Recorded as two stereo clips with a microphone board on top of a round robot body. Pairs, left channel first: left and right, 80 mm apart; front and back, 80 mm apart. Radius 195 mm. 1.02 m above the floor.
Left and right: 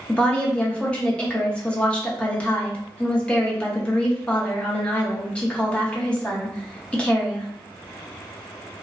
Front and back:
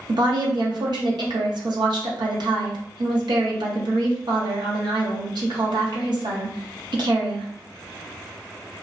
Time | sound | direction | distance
0.1 | a woman speaking | 165° left | 0.9 m